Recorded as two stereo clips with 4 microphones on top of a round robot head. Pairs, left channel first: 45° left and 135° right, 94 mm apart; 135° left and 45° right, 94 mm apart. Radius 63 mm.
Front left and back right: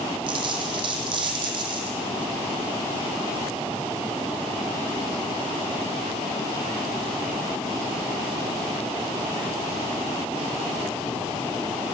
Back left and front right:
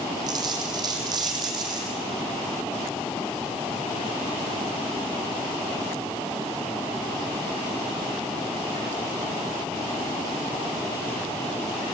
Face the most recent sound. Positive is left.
turn(degrees=-90)